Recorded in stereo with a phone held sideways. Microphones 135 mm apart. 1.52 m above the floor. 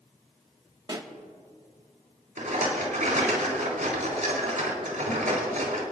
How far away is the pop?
About 1.3 m.